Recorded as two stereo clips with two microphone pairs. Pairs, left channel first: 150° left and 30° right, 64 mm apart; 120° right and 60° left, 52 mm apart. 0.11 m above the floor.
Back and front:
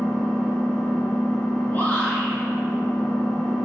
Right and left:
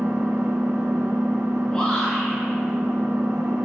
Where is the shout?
175° left, 1.2 m.